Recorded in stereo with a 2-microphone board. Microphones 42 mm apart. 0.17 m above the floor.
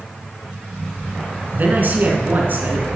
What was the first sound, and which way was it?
A man speaking, 50° right (ahead or behind).